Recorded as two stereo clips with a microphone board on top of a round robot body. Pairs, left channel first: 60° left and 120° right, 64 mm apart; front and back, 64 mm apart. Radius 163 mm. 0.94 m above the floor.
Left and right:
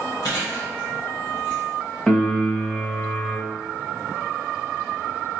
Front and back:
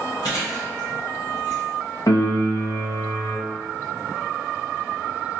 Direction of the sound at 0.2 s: 25° left.